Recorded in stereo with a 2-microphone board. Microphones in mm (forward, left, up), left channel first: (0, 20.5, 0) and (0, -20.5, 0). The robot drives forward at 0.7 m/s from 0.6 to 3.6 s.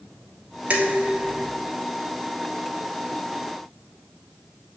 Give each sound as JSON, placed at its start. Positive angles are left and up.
{"t": 0.7, "sound": "dishes clattering", "side_deg": -35, "distance_m": 1.6}